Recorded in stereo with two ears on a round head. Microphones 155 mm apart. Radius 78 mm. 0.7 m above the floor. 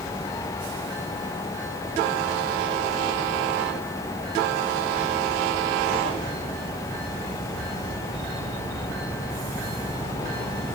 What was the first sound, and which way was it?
Only background noise.